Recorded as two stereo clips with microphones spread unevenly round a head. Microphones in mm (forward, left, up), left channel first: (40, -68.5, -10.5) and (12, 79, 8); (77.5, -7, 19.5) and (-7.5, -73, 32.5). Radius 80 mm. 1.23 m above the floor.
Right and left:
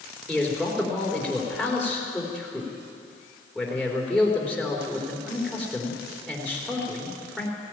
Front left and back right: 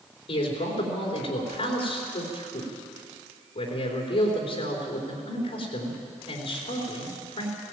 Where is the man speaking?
15° left, 4 m.